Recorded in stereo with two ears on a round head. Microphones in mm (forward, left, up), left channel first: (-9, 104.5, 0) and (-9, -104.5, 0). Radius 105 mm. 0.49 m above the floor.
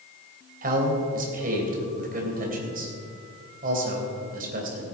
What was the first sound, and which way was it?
A man speaking, 40° right (ahead or behind).